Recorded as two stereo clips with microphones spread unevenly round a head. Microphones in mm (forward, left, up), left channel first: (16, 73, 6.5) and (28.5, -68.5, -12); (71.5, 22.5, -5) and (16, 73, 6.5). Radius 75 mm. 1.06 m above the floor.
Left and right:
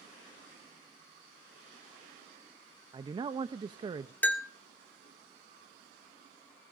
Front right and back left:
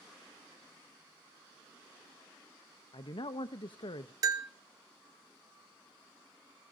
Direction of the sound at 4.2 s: Straight behind.